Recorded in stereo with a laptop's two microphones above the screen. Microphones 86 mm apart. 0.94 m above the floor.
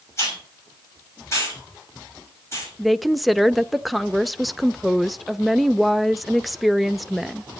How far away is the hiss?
About 6.5 m.